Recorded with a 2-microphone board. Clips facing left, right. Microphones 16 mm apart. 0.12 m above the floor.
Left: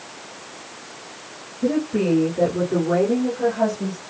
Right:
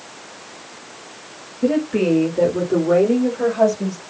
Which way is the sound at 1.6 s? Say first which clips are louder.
Right 3 dB; 60° right (ahead or behind).